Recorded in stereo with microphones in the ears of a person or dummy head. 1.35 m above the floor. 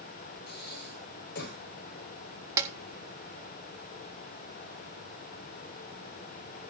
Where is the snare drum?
20° right (ahead or behind), 2 m.